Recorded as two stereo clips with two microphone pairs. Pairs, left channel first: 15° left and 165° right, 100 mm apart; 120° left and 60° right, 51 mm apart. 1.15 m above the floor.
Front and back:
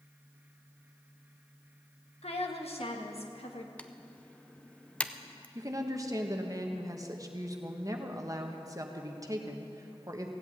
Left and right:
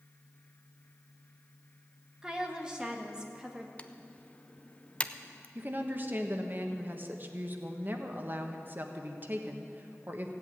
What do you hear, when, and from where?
2.2 s a woman speaking: 15° left, 1.6 m
3.8 s typing on a keyboard: 85° left, 0.5 m
5.5 s a woman speaking: 110° right, 1.3 m